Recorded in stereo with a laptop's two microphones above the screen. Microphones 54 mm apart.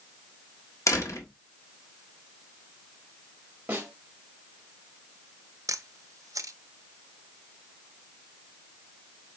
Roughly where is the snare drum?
Right.